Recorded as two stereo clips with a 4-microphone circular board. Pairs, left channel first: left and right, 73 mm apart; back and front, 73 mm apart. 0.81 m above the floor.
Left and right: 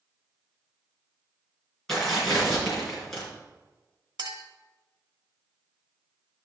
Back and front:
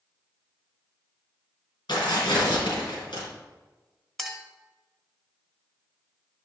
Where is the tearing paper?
175° left, 4 m.